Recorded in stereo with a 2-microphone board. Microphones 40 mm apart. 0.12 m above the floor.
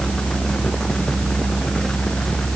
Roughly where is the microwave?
I don't hear a microwave.